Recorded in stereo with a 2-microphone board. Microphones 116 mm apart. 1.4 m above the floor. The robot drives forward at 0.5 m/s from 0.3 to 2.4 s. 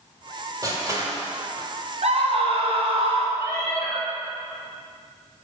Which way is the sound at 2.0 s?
60° right (ahead or behind).